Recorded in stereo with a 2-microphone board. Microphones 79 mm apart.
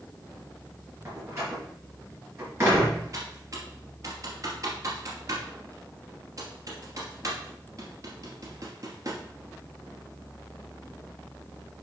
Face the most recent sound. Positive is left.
turn(degrees=-45)  # may be behind; listen again after turning